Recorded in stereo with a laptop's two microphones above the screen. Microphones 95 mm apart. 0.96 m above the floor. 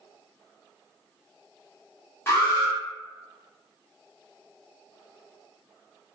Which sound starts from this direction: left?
An alarm, at 2.3 s.